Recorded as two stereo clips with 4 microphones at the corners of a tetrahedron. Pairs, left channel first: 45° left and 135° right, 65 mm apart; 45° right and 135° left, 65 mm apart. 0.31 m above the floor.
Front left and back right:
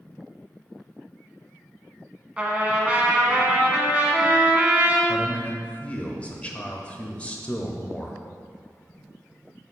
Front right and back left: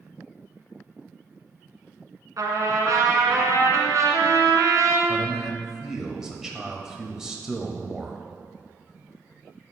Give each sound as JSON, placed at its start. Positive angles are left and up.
{"t": 2.4, "sound": "a trumpet", "azimuth_deg": 155, "distance_m": 1.4}
{"t": 5.1, "sound": "a man speaking", "azimuth_deg": 70, "distance_m": 1.0}